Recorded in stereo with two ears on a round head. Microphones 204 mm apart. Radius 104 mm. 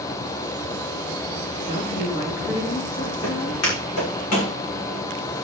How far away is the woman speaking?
About 4.5 m.